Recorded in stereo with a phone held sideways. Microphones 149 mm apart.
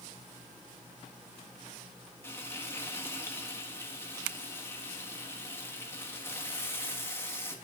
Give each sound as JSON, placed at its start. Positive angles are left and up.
{"t": 2.2, "sound": "frying", "side_deg": 20, "distance_m": 1.4}